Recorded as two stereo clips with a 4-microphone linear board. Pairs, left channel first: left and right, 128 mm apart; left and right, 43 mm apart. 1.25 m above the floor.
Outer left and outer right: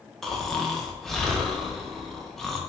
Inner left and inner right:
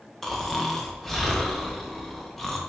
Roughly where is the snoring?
Centre.